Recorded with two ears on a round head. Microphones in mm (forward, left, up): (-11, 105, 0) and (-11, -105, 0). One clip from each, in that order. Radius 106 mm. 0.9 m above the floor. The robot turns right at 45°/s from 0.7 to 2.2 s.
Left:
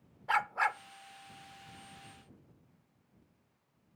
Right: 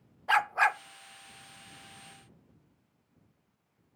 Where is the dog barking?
30° right (ahead or behind).